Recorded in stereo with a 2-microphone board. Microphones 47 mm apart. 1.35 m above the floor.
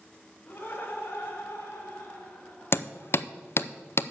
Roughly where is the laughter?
Left.